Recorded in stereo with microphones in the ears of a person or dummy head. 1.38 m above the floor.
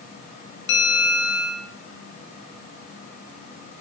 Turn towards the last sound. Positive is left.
turn(degrees=60)  # may be behind; listen again after turning